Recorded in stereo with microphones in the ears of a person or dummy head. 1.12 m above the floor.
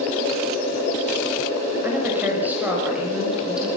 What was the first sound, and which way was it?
A woman speaking, 10° right (ahead or behind).